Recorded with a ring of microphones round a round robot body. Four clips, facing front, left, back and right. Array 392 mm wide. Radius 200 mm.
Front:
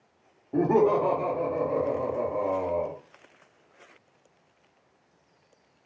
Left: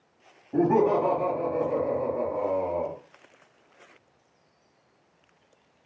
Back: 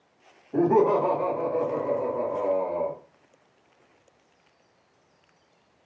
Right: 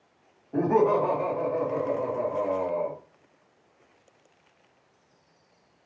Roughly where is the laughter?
Ahead left.